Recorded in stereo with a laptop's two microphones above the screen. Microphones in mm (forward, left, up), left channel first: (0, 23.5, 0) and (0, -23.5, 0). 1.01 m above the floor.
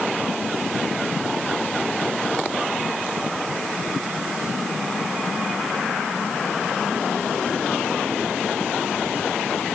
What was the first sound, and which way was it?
Only background noise.